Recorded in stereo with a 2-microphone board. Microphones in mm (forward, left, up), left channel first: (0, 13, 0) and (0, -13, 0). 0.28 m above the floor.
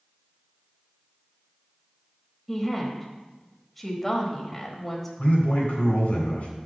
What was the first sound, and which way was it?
A woman speaking, 10° left (ahead or behind).